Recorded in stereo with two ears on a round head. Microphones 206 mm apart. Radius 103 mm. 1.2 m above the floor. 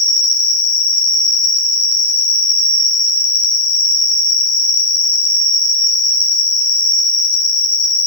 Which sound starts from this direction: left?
An insect, at 0.0 s.